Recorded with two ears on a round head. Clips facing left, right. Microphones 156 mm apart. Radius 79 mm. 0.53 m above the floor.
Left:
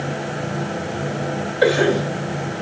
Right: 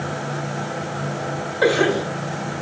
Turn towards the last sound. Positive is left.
turn(degrees=25)  # may be behind; listen again after turning